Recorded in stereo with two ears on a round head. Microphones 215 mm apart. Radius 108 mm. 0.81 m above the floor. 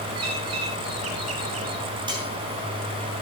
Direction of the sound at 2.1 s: 20° right (ahead or behind).